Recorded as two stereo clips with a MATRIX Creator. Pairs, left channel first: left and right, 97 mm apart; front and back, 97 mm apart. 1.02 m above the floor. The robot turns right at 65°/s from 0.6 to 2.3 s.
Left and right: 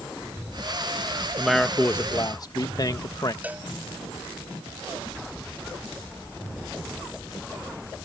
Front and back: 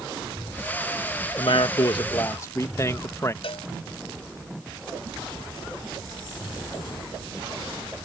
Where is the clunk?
I don't hear a clunk.